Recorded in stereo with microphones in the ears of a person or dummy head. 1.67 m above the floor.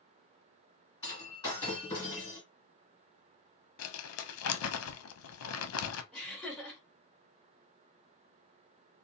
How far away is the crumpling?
About 0.6 m.